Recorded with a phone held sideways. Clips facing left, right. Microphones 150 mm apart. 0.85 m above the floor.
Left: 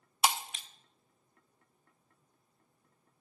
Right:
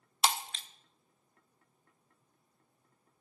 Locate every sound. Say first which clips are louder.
0.2 s breaking glass: left 1 dB; 10° left (ahead or behind), 0.6 m